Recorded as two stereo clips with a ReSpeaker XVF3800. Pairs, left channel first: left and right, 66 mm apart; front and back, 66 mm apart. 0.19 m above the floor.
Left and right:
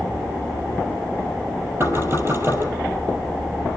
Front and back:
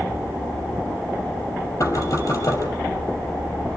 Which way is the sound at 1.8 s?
40° right.